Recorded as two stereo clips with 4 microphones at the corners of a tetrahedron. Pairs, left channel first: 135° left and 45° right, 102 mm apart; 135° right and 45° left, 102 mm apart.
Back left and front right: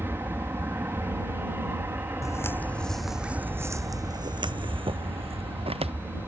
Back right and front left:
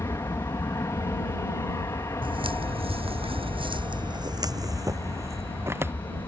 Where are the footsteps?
75° left; by 5.9 s 25° right.